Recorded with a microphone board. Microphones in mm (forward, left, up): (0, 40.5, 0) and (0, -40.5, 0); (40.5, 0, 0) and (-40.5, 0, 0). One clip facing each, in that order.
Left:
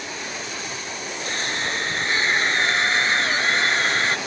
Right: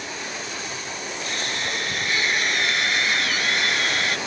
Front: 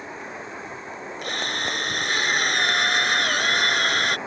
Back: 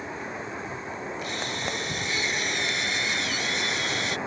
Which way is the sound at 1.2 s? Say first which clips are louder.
Left 3 dB, front 6 dB; 30° left.